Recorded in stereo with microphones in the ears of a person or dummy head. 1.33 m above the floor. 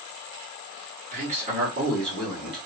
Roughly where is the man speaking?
Right.